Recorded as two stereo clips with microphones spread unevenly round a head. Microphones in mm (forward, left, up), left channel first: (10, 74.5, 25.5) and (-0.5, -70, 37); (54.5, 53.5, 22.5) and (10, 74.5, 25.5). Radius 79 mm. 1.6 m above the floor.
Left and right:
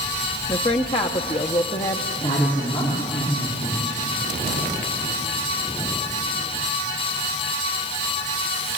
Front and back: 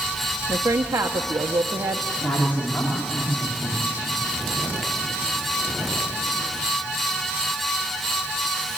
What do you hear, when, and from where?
0.5 s a woman speaking: 145° left, 0.9 m
2.2 s a woman speaking: 25° left, 5 m